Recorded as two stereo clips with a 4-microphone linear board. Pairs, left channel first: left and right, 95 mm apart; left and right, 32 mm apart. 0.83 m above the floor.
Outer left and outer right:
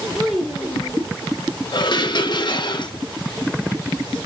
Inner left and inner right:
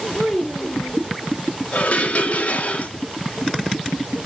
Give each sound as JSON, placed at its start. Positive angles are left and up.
{"t": 0.1, "sound": "a child speaking", "side_deg": 0, "distance_m": 1.4}
{"t": 1.7, "sound": "dishes clattering", "side_deg": 55, "distance_m": 0.6}